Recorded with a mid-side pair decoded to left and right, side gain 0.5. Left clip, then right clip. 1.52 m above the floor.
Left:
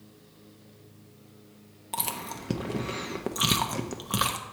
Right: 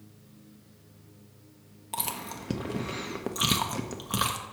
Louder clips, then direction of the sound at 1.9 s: Left 1 dB; 5° left.